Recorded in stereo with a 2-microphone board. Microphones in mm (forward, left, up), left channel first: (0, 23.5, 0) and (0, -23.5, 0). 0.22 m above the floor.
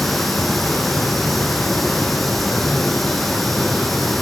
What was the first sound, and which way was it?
Running water, centre (ahead or behind).